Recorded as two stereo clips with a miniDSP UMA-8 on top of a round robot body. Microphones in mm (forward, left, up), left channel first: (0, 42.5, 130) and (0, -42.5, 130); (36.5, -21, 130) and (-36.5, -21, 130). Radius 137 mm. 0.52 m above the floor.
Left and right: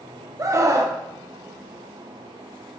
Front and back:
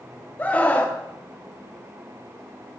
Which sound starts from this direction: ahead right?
A scream, at 0.4 s.